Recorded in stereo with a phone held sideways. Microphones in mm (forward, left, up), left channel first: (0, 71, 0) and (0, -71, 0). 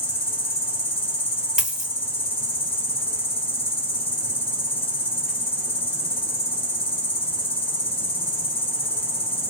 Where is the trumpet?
I don't hear a trumpet.